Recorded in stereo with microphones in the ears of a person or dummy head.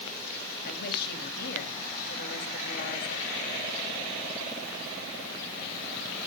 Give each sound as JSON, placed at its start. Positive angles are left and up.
{"t": 0.6, "sound": "a woman speaking", "side_deg": 55, "distance_m": 2.5}